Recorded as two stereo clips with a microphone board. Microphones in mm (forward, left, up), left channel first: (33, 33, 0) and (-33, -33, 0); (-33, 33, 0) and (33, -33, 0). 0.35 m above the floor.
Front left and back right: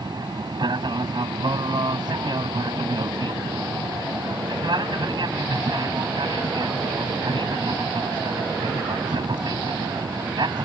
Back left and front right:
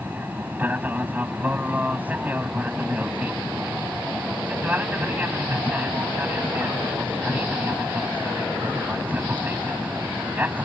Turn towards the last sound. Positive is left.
turn(degrees=-115)